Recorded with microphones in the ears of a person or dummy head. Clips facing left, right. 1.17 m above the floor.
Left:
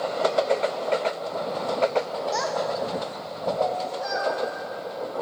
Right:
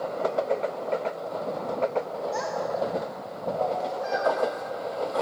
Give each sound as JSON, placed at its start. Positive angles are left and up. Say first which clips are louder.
{"t": 2.3, "sound": "a child speaking", "louder": "left 2 dB", "side_deg": 60, "distance_m": 0.6}